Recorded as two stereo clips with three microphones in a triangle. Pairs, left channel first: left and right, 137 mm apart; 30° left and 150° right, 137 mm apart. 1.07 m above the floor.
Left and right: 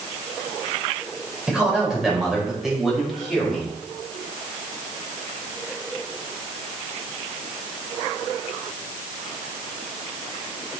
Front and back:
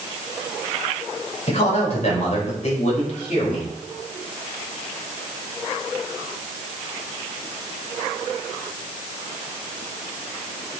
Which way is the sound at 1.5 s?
5° right.